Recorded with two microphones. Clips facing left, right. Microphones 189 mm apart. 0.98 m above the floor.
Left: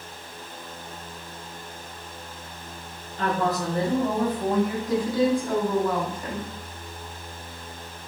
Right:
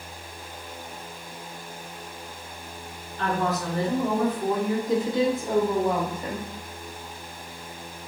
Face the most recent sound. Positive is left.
turn(degrees=-25)  # may be behind; listen again after turning